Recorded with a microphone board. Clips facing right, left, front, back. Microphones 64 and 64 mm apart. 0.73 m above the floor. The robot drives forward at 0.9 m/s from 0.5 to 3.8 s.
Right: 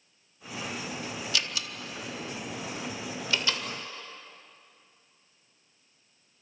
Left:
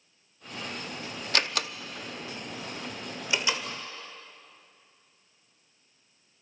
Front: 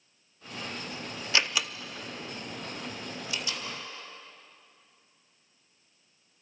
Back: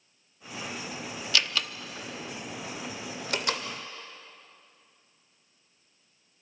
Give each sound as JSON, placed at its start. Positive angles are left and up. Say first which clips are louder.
{"t": 1.3, "sound": "a door slam", "louder": "left 8 dB, front 1 dB", "azimuth_deg": 60, "distance_m": 0.7}